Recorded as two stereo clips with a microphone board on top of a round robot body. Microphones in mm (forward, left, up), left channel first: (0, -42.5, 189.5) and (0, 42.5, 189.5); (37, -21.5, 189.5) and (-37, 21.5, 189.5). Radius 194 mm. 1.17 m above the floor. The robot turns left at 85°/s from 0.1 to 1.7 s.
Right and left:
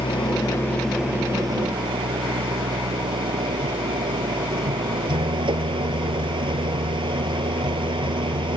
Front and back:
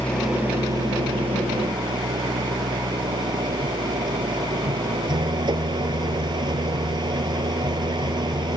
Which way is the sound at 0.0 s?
110° right.